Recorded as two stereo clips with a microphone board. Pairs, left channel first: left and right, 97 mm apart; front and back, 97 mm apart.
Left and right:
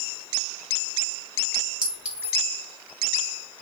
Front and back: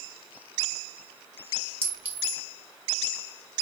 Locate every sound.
1.8 s a clink: 170° right, 1.4 m